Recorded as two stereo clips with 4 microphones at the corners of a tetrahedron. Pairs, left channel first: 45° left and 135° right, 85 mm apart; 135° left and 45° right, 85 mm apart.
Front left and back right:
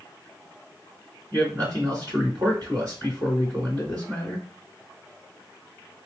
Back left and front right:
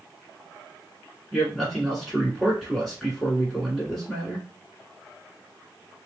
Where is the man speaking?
135° right, 2.0 m.